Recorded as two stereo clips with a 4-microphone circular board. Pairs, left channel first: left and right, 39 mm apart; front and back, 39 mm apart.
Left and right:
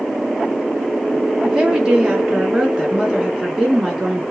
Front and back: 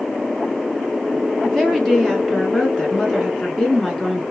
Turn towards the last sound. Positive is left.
turn(degrees=-45)